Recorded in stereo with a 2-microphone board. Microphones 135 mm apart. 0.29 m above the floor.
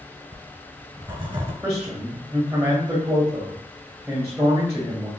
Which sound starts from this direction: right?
Writing, at 0.3 s.